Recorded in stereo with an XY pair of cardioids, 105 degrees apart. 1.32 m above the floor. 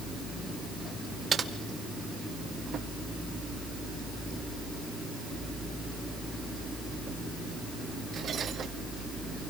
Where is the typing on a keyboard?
40° right, 2.0 m.